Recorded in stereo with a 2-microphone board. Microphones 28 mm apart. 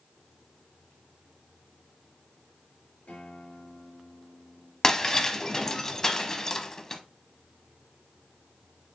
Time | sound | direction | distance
3.1 | a guitar | 75° left (ahead or behind) | 5.5 m
4.8 | breaking glass | 20° left (ahead or behind) | 0.7 m